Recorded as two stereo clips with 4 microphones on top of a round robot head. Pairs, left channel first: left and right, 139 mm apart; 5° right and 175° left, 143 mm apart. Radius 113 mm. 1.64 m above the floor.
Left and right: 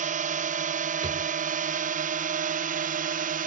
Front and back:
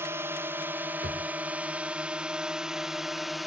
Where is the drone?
110° right; by 3.5 s 95° right.